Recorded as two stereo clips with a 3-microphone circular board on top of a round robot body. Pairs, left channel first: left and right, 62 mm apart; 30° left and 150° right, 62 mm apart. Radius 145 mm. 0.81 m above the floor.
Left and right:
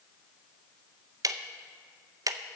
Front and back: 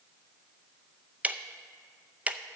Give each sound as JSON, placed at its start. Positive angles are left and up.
{"t": 1.2, "sound": "ticking", "azimuth_deg": -85, "distance_m": 0.6}